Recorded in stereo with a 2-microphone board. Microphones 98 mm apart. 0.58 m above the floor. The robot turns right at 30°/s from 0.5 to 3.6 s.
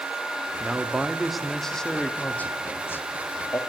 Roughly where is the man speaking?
Ahead right.